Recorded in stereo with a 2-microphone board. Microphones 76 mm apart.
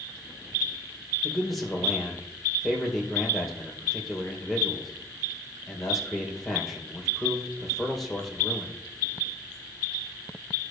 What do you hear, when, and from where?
1.2 s a man speaking: centre (ahead or behind), 3 m